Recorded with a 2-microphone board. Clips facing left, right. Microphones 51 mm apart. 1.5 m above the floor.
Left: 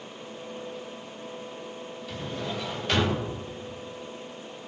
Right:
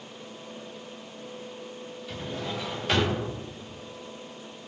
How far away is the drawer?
About 3 m.